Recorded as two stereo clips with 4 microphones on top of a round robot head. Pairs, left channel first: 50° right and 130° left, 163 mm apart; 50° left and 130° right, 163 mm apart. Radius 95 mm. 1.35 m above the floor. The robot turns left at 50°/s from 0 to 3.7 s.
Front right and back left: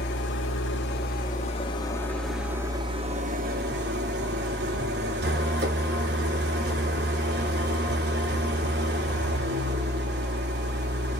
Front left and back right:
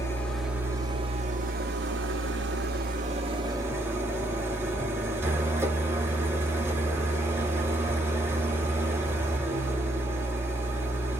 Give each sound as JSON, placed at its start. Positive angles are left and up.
{"t": 0.0, "sound": "an engine running", "azimuth_deg": -25, "distance_m": 1.2}